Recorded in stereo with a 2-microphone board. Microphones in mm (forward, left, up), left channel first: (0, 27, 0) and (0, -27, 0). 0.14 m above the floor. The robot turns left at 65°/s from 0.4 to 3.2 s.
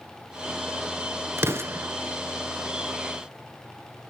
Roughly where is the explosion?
Right.